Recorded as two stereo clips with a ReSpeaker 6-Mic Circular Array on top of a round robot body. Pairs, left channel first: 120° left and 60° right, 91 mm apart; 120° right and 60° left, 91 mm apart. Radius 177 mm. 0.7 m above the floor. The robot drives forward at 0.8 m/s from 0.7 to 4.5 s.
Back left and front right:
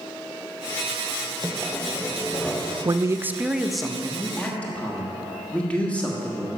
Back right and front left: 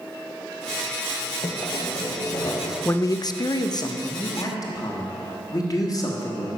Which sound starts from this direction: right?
A man speaking, at 2.9 s.